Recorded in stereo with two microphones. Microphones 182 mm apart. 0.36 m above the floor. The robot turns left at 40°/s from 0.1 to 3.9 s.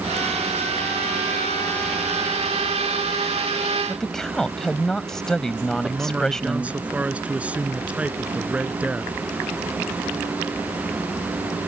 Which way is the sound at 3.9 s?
5° left (ahead or behind).